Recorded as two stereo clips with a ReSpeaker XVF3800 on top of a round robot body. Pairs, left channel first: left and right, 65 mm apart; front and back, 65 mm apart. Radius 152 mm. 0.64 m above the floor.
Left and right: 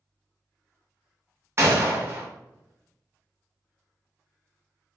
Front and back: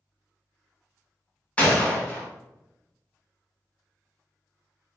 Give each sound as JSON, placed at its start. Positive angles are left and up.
{"t": 1.6, "sound": "a gunshot", "azimuth_deg": -65, "distance_m": 1.0}